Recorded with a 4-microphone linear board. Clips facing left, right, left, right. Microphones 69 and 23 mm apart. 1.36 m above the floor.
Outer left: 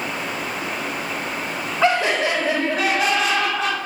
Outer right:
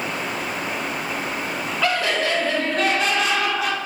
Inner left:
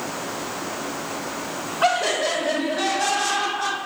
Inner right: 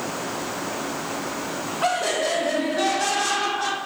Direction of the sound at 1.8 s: 25° left (ahead or behind).